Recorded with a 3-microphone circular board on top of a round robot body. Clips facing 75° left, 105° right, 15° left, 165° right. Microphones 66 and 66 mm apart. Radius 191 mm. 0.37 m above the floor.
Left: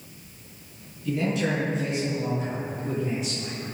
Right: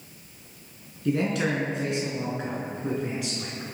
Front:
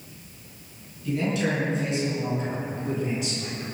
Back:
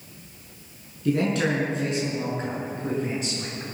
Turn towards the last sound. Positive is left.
turn(degrees=-115)